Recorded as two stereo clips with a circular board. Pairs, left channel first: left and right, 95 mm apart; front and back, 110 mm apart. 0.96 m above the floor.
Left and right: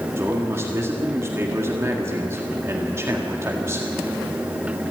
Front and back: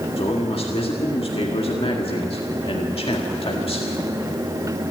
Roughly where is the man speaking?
Ahead right.